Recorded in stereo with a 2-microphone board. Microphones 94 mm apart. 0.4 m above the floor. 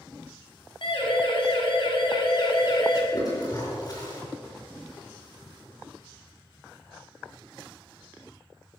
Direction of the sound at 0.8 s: 60° left (ahead or behind).